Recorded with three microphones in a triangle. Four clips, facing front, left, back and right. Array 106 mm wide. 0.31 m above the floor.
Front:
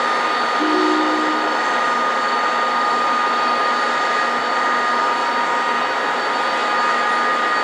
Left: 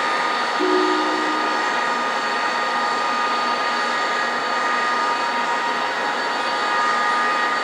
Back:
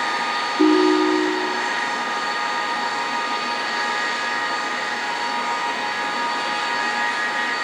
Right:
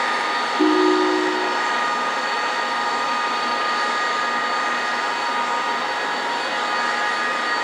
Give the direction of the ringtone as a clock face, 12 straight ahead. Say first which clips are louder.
Right 3 dB, back 4 dB; 5 o'clock.